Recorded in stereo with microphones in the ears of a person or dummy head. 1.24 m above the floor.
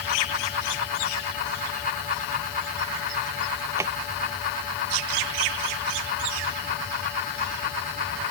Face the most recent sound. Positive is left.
turn(degrees=-15)  # may be behind; listen again after turning